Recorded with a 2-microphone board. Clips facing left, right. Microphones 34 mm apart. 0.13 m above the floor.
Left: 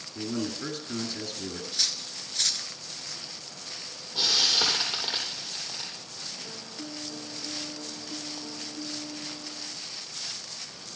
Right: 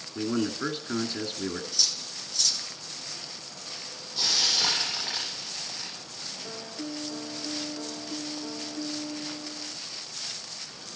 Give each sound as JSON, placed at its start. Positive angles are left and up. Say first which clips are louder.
{"t": 0.1, "sound": "a man speaking", "louder": "right 4 dB", "side_deg": -30, "distance_m": 1.8}
{"t": 1.7, "sound": "cutlery clinking", "louder": "even", "side_deg": 50, "distance_m": 0.9}
{"t": 4.2, "sound": "frying", "louder": "left 2 dB", "side_deg": 35, "distance_m": 8.0}
{"t": 6.4, "sound": "a piano", "louder": "right 3 dB", "side_deg": -15, "distance_m": 1.3}